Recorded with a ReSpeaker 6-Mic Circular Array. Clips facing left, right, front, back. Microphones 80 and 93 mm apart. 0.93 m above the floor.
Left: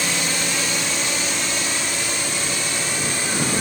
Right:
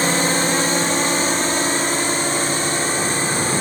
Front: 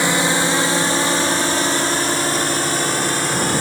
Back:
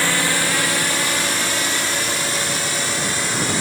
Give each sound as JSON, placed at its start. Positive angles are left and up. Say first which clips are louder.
{"t": 0.0, "sound": "a drone", "louder": "right 7 dB, front 3 dB", "azimuth_deg": -60}